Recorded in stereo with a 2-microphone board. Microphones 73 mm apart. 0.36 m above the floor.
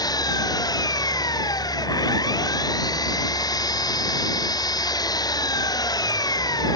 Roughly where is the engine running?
Left.